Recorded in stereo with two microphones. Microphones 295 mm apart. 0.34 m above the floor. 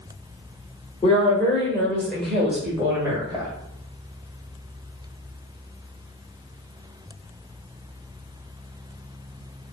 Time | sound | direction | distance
1.0 | a woman speaking | 20° left (ahead or behind) | 1.5 m